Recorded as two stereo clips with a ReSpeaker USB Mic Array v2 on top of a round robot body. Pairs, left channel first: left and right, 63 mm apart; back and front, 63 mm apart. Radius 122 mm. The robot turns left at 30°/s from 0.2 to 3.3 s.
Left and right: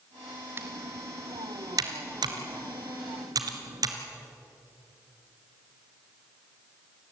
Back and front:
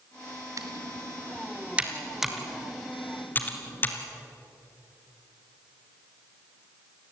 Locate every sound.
0.6 s typing on a keyboard: 35° right, 1.7 m; by 4.0 s 115° right, 1.7 m